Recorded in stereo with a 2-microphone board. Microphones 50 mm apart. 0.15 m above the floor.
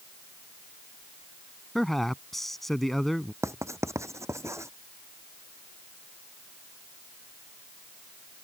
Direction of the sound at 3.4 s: 75° right (ahead or behind).